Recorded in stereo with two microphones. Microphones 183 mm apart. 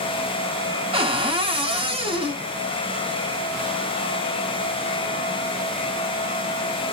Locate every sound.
0.9 s a cupboard door: 30° right (ahead or behind), 0.7 m